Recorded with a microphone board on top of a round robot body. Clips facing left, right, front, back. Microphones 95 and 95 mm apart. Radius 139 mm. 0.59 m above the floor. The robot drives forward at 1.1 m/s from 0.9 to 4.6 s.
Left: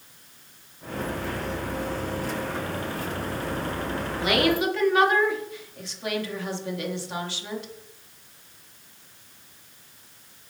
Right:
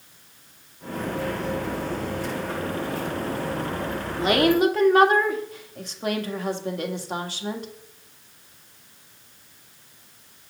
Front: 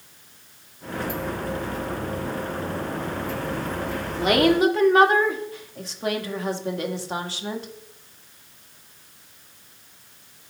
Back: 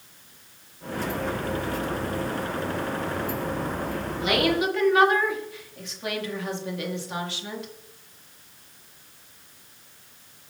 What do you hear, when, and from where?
4.2 s a woman speaking: 40° right, 1.9 m; by 7.7 s 50° right, 1.7 m